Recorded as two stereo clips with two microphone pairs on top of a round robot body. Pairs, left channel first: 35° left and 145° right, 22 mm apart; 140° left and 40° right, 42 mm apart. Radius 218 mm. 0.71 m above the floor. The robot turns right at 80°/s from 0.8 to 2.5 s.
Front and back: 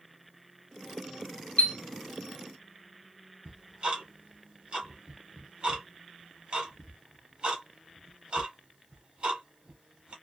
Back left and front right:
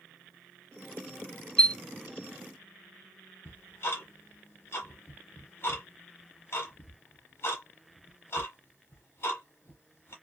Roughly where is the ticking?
Behind.